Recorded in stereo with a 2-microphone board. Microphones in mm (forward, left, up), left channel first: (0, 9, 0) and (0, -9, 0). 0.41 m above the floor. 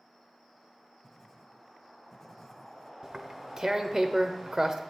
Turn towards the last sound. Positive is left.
turn(degrees=-35)  # may be behind; listen again after turning